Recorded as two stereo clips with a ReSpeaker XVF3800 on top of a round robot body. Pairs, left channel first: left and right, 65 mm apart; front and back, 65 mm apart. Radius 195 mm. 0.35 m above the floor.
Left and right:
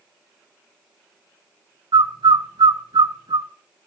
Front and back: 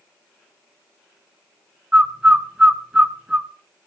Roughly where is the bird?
Right.